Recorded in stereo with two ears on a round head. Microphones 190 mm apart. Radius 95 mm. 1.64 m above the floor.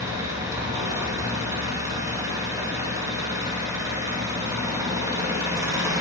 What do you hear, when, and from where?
0.0 s an engine running: 15° right (ahead or behind), 2.5 m